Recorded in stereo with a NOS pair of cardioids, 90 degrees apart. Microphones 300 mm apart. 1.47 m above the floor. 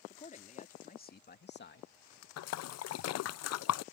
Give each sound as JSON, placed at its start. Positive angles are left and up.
{"t": 0.1, "sound": "a man speaking", "azimuth_deg": 25}
{"t": 2.4, "sound": "a splash", "azimuth_deg": 55}